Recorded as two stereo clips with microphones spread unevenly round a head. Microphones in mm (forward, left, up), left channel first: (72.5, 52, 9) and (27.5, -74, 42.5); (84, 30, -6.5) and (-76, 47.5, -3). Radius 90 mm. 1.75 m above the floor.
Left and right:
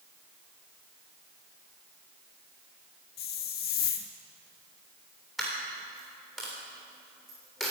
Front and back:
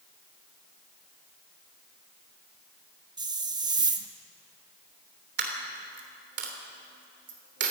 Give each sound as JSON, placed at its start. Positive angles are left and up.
{"t": 3.2, "sound": "a hiss", "azimuth_deg": 115, "distance_m": 1.3}
{"t": 5.4, "sound": "a dropped coin", "azimuth_deg": 165, "distance_m": 3.0}